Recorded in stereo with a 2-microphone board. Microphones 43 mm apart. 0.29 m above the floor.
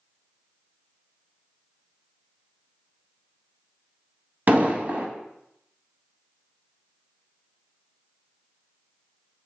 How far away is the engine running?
I don't hear an engine running.